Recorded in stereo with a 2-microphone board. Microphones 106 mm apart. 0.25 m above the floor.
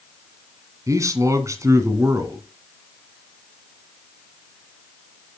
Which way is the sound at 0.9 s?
30° right (ahead or behind).